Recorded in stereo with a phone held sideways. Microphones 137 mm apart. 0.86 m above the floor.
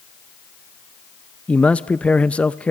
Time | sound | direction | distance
1.5 | a man speaking | 10° left (ahead or behind) | 0.6 m